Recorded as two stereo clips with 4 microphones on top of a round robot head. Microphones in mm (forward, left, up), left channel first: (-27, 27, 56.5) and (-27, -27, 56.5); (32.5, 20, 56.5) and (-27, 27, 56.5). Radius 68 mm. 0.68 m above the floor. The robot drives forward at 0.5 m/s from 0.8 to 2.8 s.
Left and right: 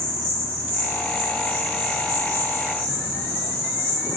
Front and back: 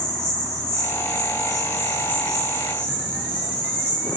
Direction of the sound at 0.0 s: 15° left.